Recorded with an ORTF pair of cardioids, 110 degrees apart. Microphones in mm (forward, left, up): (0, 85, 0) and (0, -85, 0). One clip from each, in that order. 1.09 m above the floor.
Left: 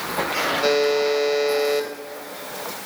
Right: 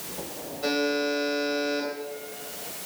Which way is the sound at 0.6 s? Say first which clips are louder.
Left 5 dB; 50° left.